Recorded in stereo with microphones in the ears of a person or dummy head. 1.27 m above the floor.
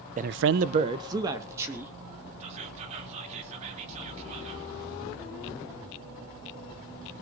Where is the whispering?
45° right (ahead or behind), 3 m.